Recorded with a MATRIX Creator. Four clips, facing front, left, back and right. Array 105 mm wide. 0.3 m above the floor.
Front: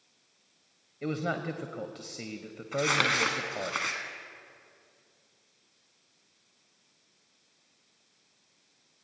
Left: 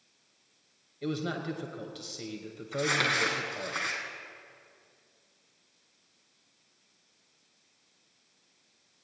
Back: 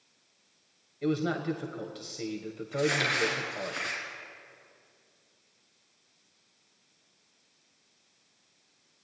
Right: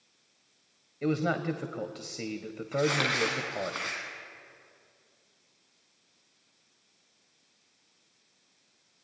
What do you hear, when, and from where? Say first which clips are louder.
1.0 s a man speaking: right 5 dB, back 3 dB; 65° right, 1.2 m
2.7 s crumpling: right 2 dB, front 1 dB; straight ahead, 3.5 m